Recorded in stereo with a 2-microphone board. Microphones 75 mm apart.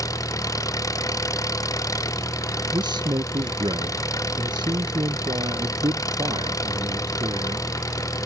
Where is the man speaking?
75° right (ahead or behind).